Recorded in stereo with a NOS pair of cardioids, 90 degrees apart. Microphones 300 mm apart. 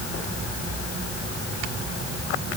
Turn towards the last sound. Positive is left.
No sound to turn to.